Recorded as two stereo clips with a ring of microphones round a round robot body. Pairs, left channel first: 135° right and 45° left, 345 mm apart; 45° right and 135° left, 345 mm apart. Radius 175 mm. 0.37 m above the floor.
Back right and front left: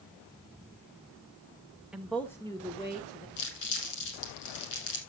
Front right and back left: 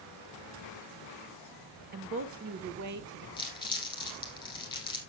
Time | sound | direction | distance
1.9 | a woman speaking | 130° left | 1.0 m
3.4 | crumpling | 120° right | 6 m